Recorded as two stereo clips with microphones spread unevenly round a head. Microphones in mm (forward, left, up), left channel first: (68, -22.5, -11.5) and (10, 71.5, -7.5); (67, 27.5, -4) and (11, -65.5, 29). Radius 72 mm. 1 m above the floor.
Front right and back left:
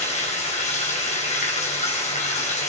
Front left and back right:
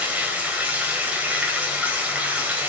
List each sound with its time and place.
0.0 s running water: 45° right, 4 m